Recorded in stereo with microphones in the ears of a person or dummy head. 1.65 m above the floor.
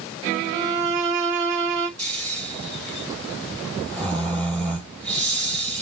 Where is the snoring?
5° left (ahead or behind), 3 m.